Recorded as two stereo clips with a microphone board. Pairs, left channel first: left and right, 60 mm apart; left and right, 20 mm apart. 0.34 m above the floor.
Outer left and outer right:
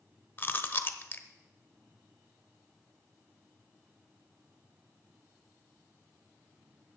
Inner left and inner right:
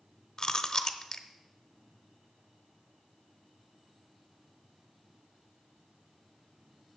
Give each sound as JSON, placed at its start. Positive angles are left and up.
{"t": 0.4, "sound": "chewing", "side_deg": 35, "distance_m": 0.7}